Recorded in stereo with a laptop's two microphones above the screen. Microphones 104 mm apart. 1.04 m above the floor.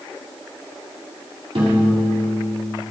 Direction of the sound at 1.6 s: 55° right (ahead or behind).